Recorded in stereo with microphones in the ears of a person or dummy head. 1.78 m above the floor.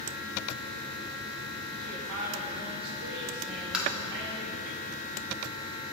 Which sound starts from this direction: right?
A woman speaking, at 1.8 s.